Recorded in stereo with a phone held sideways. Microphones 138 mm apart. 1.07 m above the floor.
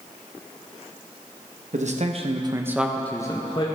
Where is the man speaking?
60° right (ahead or behind), 1.0 m; by 3.7 s 40° left (ahead or behind), 1.0 m.